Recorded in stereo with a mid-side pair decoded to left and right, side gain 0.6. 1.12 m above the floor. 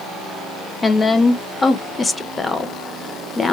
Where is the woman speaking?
20° left, 0.6 m.